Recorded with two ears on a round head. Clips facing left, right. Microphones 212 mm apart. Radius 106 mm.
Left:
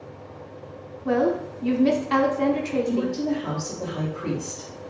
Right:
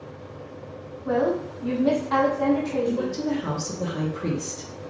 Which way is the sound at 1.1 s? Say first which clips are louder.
Left 1 dB; 45° left (ahead or behind).